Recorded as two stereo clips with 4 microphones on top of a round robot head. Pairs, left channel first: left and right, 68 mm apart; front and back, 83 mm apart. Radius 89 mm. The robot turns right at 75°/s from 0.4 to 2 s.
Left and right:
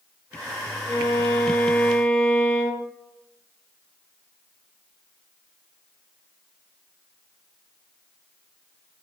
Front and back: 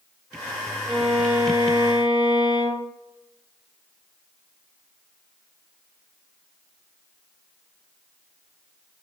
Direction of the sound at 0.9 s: 80° left.